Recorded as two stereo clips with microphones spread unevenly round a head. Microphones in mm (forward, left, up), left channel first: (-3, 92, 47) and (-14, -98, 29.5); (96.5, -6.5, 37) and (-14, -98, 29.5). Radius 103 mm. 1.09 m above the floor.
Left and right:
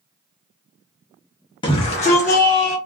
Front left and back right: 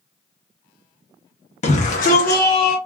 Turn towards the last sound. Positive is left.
turn(degrees=40)